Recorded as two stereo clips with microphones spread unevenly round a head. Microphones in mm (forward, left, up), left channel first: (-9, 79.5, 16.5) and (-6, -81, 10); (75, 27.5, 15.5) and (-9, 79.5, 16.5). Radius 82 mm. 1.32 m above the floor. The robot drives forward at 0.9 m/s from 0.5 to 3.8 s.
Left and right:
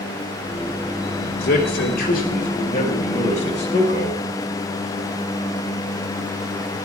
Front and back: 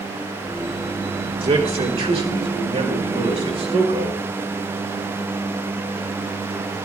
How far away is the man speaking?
About 3.5 m.